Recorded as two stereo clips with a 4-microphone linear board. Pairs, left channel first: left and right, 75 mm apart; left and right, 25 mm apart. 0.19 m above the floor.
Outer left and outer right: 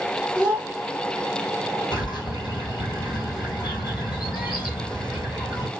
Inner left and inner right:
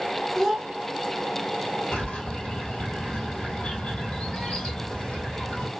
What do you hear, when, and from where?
0.3 s a child speaking: 15° left (ahead or behind), 1.3 m
1.9 s a bird: 70° left (ahead or behind), 1.6 m